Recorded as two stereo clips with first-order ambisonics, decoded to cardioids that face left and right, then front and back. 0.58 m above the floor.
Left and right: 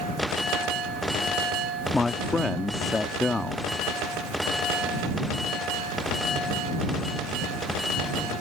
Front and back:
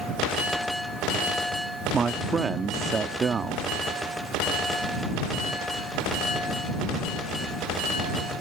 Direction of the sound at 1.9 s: 155° left.